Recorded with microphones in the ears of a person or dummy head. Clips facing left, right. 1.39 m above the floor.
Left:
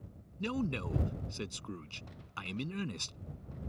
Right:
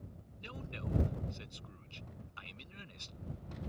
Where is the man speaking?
70° left (ahead or behind).